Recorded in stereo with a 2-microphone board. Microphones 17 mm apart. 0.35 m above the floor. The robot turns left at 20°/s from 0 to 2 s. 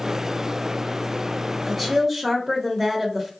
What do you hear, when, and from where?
1.7 s a woman speaking: 10° right (ahead or behind), 1.0 m; by 3.3 s 15° right (ahead or behind), 1.0 m